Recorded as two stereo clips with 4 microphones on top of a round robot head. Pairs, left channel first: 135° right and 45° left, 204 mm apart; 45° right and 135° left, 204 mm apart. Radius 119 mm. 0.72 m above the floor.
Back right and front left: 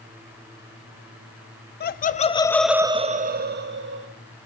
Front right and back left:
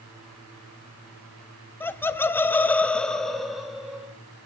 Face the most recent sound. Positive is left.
turn(degrees=45)